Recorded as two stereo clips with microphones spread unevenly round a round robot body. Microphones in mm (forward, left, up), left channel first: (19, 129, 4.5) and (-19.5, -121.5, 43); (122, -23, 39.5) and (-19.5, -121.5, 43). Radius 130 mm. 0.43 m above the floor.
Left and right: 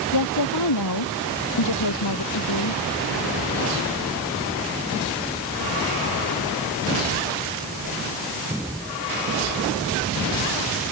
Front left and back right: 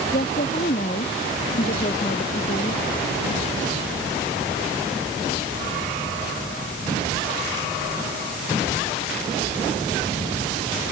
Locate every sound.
0.1 s a woman speaking: 95° left